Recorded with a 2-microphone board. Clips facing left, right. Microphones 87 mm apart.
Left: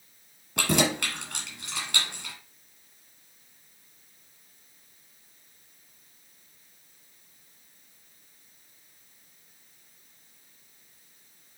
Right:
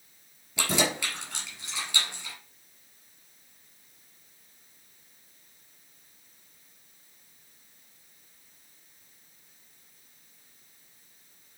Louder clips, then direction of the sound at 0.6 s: Left 3 dB; 55° left (ahead or behind).